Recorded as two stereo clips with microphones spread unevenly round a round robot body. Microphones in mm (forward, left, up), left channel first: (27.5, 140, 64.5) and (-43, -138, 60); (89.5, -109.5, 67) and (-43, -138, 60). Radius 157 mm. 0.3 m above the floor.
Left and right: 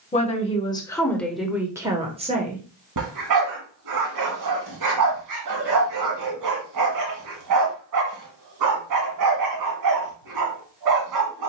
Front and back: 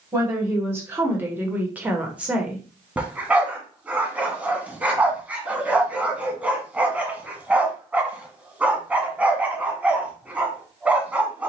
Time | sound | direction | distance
0.1 | a woman speaking | 130° left | 1.5 m
3.0 | a dog barking | 90° right | 1.5 m